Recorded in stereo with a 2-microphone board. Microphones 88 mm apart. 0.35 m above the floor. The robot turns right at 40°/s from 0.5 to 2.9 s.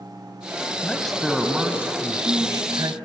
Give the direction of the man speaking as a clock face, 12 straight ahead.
7 o'clock.